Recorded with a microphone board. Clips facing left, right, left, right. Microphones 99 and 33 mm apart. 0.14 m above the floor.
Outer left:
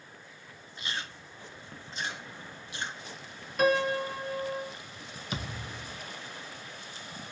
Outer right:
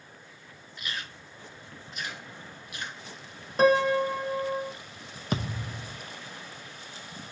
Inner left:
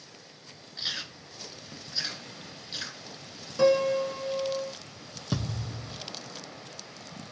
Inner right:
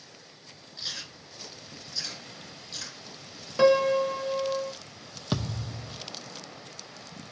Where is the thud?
50° right (ahead or behind), 0.7 m.